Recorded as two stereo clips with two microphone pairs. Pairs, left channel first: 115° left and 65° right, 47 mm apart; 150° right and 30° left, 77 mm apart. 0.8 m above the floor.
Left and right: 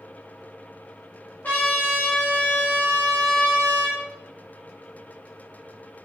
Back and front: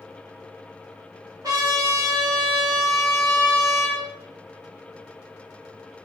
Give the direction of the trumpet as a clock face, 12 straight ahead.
10 o'clock.